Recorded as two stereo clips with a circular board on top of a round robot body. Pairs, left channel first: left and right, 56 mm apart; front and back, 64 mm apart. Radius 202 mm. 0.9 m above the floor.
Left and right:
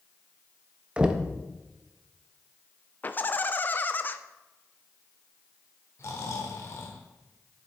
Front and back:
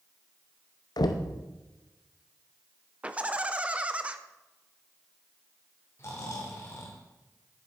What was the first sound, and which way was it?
Knocking, 15° right.